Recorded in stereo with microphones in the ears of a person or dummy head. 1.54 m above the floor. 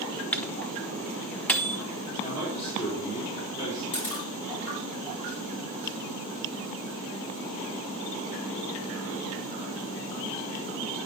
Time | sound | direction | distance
0.3 | a microwave | 10° left (ahead or behind) | 0.7 m
2.2 | a man speaking | 30° left (ahead or behind) | 4 m
3.9 | a camera shutter | 40° left (ahead or behind) | 3.5 m